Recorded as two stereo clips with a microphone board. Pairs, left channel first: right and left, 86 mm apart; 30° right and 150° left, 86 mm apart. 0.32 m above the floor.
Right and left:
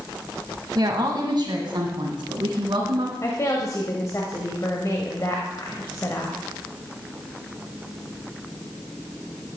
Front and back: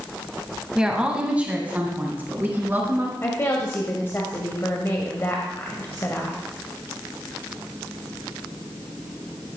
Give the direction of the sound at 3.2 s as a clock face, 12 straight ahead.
2 o'clock.